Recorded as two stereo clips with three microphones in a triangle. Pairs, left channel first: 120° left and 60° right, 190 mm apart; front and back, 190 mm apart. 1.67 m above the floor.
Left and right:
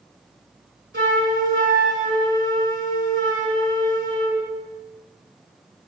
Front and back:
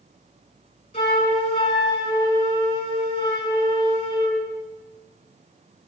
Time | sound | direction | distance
0.9 | a flute | 45° right | 2.5 m